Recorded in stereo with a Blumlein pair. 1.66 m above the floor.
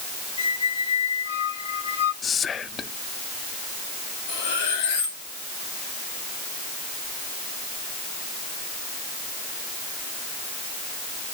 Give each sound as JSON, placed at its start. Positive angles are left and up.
{"t": 0.4, "sound": "a squeak", "azimuth_deg": 65, "distance_m": 6.5}
{"t": 2.2, "sound": "whispering", "azimuth_deg": 20, "distance_m": 0.5}
{"t": 4.3, "sound": "cutlery clinking", "azimuth_deg": 55, "distance_m": 3.0}